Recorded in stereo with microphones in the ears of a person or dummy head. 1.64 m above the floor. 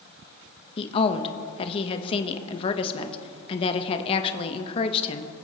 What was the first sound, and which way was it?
A woman speaking, 30° left (ahead or behind).